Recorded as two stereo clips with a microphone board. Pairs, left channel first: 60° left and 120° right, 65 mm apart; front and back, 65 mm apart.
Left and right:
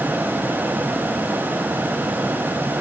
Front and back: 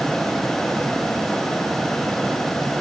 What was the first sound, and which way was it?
Only background noise.